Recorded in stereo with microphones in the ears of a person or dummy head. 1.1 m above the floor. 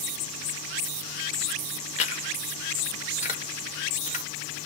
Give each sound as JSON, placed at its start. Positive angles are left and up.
{"t": 2.0, "sound": "chewing", "side_deg": 35, "distance_m": 1.1}